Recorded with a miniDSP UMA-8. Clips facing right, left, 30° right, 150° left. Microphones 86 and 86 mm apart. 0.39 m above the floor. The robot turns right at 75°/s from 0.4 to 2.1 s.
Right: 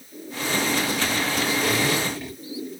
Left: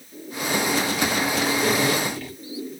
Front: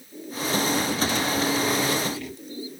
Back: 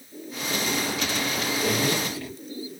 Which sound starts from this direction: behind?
A zipper, at 1.6 s.